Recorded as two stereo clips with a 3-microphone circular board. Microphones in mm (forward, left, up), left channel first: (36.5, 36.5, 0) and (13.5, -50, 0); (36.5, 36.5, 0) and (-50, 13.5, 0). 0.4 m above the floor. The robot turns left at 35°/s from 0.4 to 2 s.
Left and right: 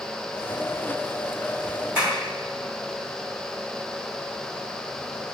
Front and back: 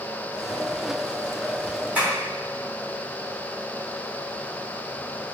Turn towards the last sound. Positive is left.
turn(degrees=-125)